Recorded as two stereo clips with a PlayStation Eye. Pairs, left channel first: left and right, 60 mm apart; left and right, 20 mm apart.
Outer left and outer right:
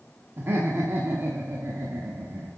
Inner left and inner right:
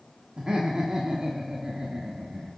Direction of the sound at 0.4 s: 40° right (ahead or behind).